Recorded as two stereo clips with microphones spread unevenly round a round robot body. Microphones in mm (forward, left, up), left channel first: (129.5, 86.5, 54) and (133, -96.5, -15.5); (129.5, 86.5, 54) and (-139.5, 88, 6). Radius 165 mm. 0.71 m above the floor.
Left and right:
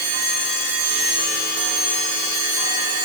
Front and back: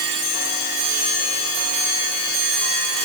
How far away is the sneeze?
No sneeze in this recording.